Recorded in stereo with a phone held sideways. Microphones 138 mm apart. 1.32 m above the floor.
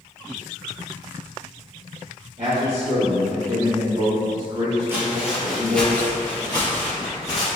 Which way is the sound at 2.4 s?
80° right.